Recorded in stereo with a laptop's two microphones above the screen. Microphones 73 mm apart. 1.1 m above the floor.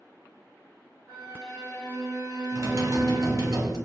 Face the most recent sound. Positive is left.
turn(degrees=-50)  # may be behind; listen again after turning